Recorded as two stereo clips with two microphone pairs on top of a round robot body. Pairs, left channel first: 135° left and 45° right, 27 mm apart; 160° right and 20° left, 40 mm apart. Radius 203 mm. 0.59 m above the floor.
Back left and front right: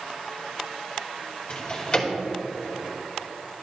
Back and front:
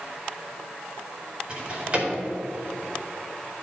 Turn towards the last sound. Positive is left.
turn(degrees=80)